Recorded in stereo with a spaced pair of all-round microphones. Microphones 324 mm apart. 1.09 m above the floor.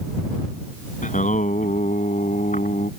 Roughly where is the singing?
Left.